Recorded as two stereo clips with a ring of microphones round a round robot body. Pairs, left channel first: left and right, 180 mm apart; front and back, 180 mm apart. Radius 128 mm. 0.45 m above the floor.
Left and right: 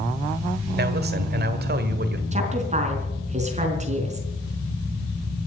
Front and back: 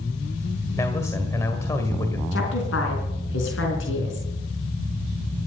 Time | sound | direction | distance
0.8 | a man speaking | 75° right | 1.6 m
2.3 | a woman speaking | 40° right | 4.5 m